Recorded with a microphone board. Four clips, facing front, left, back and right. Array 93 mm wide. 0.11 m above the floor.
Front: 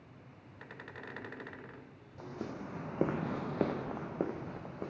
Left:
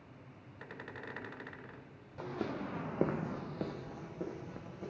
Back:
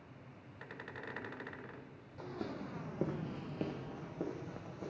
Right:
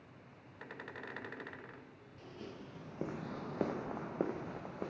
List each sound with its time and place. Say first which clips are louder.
2.2 s footsteps: left 11 dB, front 1 dB; 80° left, 1.2 m; by 4.9 s 55° right, 1.7 m